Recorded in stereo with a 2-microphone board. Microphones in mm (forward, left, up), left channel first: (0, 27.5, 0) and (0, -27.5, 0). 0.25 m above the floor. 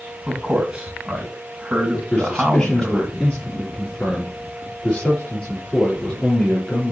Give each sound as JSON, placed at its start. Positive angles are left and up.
{"t": 0.3, "sound": "a man speaking", "side_deg": -15, "distance_m": 2.5}
{"t": 2.1, "sound": "a man speaking", "side_deg": 20, "distance_m": 5.0}